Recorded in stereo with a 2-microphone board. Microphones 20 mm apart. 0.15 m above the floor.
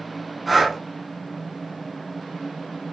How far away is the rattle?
No rattle in this recording.